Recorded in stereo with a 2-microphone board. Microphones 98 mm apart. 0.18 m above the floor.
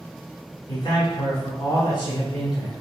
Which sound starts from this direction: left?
A man speaking, at 0.7 s.